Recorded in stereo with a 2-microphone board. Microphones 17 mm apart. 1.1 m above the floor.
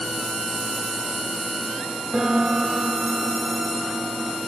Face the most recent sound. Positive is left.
turn(degrees=-30)  # may be behind; listen again after turning